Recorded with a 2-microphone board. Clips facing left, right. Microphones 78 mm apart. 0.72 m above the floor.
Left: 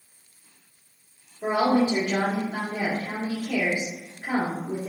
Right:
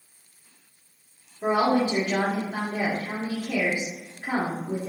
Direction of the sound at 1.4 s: 25° right (ahead or behind).